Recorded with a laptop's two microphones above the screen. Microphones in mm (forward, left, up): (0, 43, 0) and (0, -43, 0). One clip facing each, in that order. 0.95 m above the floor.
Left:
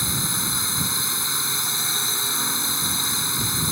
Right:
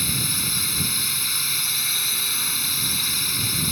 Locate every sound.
0.0 s a drone: 25° left (ahead or behind)